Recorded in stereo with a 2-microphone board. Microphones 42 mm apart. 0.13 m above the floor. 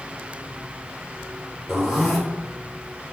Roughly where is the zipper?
Centre.